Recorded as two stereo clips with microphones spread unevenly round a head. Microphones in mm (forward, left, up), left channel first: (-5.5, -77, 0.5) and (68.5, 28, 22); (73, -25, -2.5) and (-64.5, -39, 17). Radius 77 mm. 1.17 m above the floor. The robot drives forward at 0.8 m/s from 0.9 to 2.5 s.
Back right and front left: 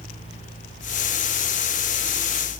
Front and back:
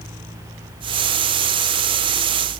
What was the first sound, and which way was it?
Only background noise.